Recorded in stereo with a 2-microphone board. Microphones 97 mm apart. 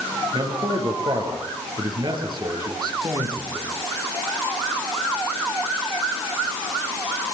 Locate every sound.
0.3 s a man speaking: 55° right (ahead or behind), 8.5 m; by 3.7 s 45° right (ahead or behind), 9 m